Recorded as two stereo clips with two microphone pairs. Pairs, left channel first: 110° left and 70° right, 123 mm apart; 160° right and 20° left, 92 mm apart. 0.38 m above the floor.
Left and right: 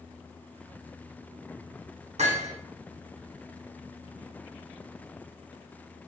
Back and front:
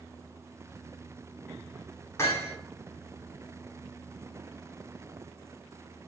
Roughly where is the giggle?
No giggle in this recording.